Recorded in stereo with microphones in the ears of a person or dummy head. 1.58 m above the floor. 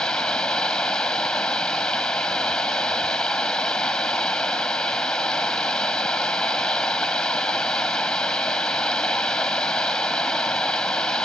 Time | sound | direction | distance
0.0 | running water | centre (ahead or behind) | ?